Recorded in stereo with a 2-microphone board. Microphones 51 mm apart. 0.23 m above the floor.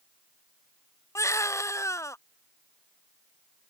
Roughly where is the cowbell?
I don't hear a cowbell.